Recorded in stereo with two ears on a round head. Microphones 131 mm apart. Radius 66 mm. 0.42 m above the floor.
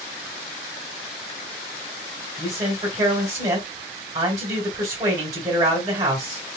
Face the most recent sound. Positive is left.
turn(degrees=-25)  # may be behind; listen again after turning